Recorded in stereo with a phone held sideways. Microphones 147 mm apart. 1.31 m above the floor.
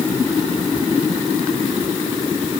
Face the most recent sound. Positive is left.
No sound to turn to.